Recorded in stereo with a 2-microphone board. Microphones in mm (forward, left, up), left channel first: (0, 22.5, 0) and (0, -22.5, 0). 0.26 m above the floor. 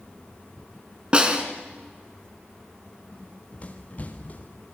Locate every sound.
1.1 s a snare drum: 25° right (ahead or behind), 3.5 m
3.1 s running footsteps: 30° left (ahead or behind), 4 m; by 4.7 s 40° left (ahead or behind), 3.5 m